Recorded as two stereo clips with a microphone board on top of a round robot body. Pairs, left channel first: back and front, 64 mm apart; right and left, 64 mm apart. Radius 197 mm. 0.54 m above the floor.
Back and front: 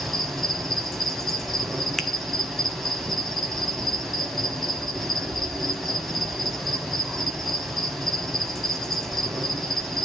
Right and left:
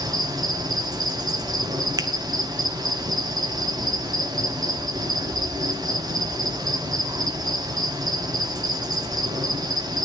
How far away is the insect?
About 2.5 m.